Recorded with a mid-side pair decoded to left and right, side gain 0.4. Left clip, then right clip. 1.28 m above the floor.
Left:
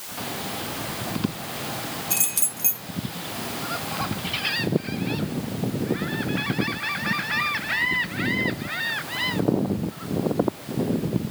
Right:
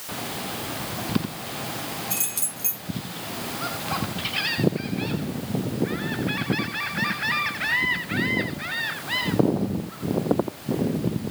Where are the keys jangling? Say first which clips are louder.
Left 3 dB; 25° left, 7.5 m.